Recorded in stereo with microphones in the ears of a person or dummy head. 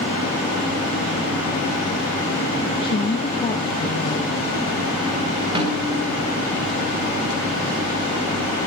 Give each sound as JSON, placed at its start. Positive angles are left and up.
{"t": 2.7, "sound": "a woman speaking", "side_deg": 25, "distance_m": 1.5}
{"t": 5.5, "sound": "a snare drum", "side_deg": -30, "distance_m": 5.0}